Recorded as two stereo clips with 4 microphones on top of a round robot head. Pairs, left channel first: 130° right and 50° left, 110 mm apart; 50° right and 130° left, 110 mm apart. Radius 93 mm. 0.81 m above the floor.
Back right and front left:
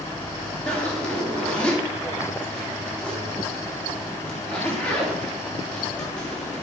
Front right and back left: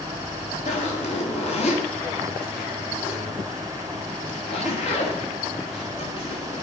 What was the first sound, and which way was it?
A zipper, 50° right.